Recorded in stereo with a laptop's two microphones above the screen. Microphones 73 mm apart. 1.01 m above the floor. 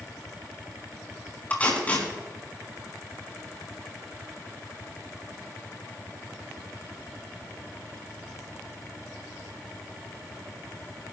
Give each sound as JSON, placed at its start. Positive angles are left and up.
{"t": 1.5, "sound": "tape being pulled", "side_deg": 20, "distance_m": 5.5}